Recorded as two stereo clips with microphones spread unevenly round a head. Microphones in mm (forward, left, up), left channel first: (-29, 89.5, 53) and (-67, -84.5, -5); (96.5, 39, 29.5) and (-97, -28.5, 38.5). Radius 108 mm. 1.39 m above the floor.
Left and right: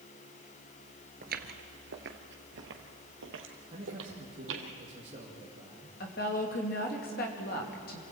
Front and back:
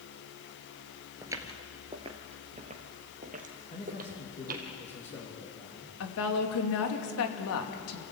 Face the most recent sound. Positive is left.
turn(degrees=25)